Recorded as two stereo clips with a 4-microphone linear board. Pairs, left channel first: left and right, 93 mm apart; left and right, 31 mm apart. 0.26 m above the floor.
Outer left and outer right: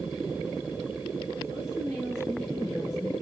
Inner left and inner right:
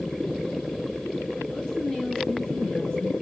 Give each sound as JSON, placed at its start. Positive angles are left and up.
{"t": 1.5, "sound": "a woman speaking", "side_deg": 35, "distance_m": 4.5}